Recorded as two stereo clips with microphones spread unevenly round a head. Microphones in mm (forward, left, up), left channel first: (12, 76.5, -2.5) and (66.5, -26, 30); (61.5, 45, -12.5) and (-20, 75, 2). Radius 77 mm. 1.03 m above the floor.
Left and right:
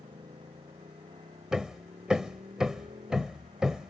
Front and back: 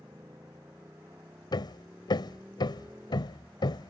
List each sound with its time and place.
0.0 s a motorcycle: 125° right; by 3.9 s 120° right
1.5 s hammering: 15° left